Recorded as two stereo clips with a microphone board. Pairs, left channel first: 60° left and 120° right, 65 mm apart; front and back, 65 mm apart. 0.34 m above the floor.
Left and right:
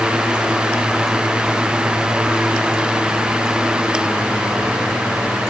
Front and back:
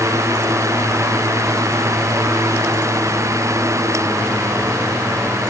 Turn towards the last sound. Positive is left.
No sound to turn to.